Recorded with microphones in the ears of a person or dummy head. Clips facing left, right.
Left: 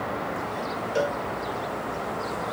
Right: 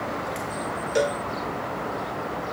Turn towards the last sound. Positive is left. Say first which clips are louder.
# right 3 dB
turn(degrees=-25)  # may be behind; listen again after turning